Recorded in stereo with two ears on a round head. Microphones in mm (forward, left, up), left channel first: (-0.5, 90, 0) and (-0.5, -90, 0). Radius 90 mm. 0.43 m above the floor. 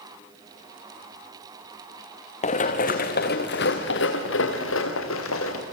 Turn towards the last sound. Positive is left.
turn(degrees=80)